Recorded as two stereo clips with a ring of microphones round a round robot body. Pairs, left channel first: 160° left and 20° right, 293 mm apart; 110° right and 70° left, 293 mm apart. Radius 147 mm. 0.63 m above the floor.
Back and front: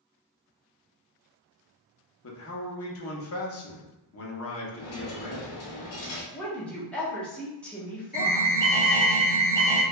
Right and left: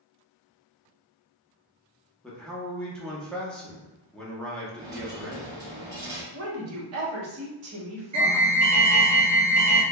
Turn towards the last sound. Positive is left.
turn(degrees=100)